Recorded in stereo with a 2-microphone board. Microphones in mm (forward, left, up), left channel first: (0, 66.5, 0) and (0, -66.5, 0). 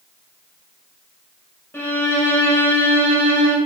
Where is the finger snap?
No finger snap in this recording.